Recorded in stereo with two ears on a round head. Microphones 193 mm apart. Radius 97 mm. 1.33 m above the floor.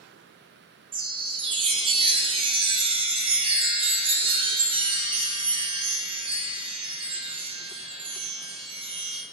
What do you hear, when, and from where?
0.9 s a chime: 25° right (ahead or behind), 0.8 m